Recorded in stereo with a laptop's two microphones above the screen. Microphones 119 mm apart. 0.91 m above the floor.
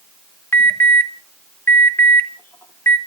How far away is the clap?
No clap in this recording.